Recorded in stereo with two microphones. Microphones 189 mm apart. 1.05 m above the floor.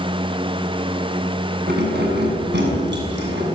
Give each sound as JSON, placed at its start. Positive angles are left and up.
{"t": 1.7, "sound": "keys jangling", "side_deg": -60, "distance_m": 6.5}